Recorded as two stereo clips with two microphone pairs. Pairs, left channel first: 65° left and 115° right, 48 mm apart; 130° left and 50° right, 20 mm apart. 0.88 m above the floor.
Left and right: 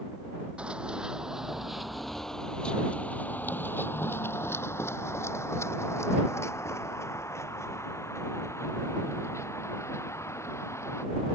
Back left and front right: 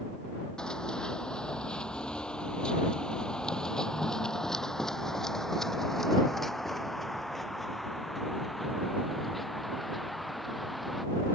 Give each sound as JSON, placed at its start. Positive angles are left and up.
{"t": 0.6, "sound": "running footsteps", "azimuth_deg": 180}